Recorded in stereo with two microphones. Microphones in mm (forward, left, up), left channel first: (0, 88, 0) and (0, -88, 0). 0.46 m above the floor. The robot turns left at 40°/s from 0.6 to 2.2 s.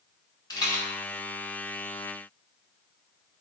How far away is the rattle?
About 0.8 m.